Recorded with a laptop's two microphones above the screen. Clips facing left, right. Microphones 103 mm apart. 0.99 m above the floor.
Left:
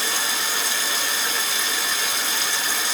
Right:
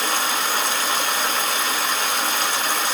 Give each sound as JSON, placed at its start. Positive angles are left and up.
{"t": 0.0, "sound": "running water", "side_deg": -50, "distance_m": 1.0}